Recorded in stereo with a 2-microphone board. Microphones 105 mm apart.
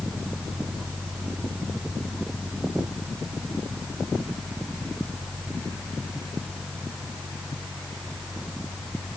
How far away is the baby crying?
No baby crying in this recording.